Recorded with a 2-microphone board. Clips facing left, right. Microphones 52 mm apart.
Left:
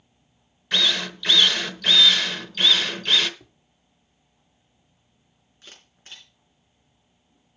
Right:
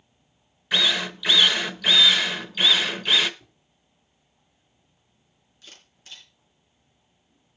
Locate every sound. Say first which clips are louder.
0.7 s a drill: even; 10° right (ahead or behind), 0.9 m
3.4 s tapping: left 4 dB; 85° left, 5 m
5.6 s a camera shutter: left 1 dB; 35° left (ahead or behind), 4.5 m